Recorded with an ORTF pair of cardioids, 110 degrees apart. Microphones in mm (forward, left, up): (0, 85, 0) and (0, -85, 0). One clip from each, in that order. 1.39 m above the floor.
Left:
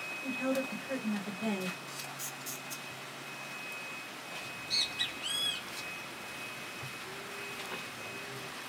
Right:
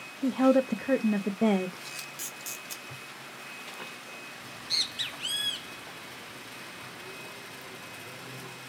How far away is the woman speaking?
About 0.6 m.